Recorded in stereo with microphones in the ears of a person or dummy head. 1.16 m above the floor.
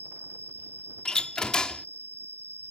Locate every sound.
0.0 s an insect: 30° right (ahead or behind)
1.1 s a door slam: 5° left (ahead or behind)